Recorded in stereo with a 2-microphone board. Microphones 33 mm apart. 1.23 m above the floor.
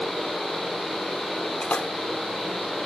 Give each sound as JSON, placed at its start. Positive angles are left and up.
{"t": 1.6, "sound": "a splash", "side_deg": 55}